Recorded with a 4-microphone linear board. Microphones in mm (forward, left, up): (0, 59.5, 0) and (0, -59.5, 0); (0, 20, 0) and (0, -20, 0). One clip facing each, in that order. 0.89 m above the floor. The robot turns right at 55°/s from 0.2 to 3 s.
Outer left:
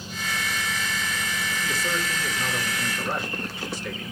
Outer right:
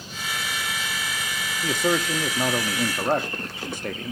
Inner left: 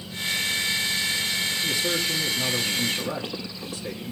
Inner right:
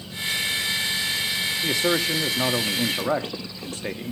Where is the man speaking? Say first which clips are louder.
Outer right 8 dB, inner right 6 dB; 130° right, 1.3 m; by 4.1 s 55° right, 1.3 m.